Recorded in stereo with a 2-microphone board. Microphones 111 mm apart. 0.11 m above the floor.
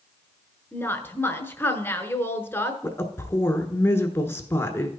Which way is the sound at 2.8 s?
20° left (ahead or behind).